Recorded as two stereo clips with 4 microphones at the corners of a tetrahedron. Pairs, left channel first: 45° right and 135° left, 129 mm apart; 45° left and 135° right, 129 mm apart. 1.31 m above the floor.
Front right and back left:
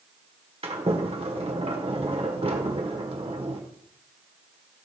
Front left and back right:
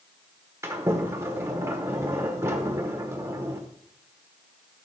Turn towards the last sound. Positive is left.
turn(degrees=160)